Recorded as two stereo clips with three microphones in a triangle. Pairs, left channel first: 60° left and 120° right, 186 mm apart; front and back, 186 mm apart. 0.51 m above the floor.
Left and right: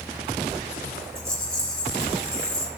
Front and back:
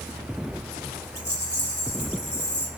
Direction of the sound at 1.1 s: 25° right.